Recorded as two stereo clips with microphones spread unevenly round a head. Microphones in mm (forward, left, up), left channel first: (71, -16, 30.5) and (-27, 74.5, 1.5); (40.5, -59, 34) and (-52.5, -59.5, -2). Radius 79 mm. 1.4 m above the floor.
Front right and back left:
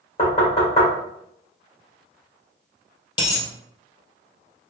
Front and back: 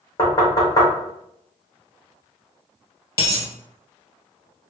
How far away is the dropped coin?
About 2.0 m.